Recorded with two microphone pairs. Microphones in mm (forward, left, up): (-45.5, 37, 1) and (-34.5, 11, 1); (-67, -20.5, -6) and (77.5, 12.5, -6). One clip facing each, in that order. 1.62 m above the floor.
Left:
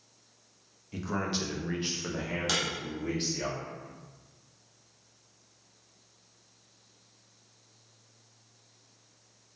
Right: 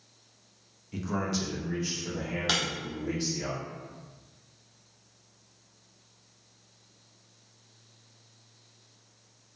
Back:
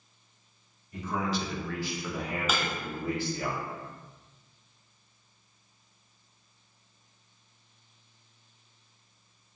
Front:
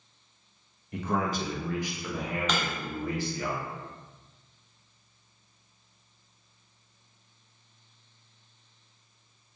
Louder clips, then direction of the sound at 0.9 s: Right 1 dB, front 2 dB; 30° left.